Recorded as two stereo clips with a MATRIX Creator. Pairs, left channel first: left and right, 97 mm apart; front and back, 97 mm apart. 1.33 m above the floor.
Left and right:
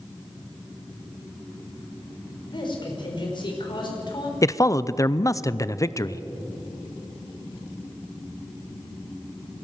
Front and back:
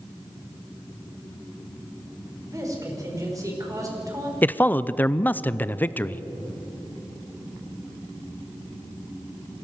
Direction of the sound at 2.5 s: 125° left.